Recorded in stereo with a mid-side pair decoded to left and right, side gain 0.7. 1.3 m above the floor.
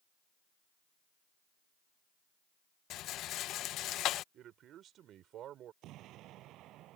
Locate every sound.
2.9 s a rattle: 50° left
4.3 s a man speaking: 45° right
5.8 s an explosion: 55° right